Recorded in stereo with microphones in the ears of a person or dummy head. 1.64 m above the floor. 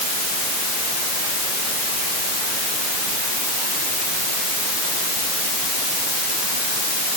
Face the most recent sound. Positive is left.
No sound to turn to.